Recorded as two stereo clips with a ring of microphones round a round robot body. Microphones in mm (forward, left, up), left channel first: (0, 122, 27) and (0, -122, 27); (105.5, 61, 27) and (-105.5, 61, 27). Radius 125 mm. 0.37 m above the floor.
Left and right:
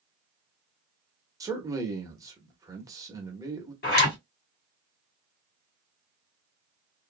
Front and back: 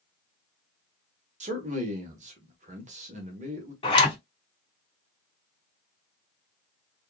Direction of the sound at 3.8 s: 55° left.